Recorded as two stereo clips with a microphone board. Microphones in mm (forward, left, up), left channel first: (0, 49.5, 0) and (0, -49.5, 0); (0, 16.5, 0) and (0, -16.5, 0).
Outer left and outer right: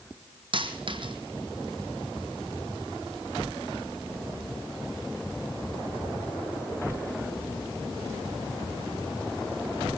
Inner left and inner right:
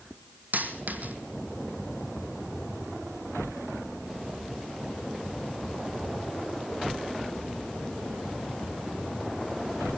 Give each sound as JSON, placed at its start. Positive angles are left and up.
{"t": 0.5, "sound": "a dropped coin", "side_deg": -60, "distance_m": 1.5}